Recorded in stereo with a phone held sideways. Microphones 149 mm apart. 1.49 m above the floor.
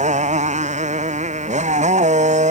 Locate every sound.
0.0 s a motorcycle: 55° right (ahead or behind)